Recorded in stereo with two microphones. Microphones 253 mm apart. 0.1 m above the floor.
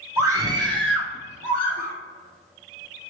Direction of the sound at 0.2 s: 10° right (ahead or behind).